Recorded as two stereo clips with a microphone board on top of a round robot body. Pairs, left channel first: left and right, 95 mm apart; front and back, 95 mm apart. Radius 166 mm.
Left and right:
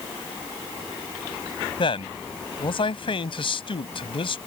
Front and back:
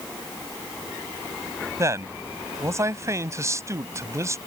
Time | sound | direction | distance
1.8 | a man speaking | 120° left | ?